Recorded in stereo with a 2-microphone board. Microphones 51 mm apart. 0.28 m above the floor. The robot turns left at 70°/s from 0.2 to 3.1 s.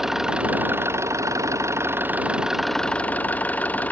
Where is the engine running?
5° right; by 3.9 s 150° left.